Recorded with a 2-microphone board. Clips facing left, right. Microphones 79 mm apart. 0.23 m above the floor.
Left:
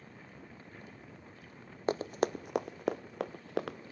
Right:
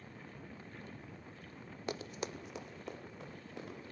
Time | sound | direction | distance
1.9 | running footsteps | 35° left (ahead or behind) | 0.5 m